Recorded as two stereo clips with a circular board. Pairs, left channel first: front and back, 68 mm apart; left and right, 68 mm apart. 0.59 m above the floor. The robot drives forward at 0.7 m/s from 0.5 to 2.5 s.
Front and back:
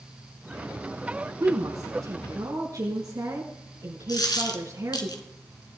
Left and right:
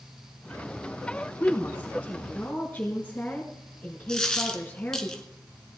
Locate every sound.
1.4 s a woman speaking: 150° left, 5.5 m; by 5.1 s 155° left, 6 m
4.1 s a dropped coin: 10° left, 2 m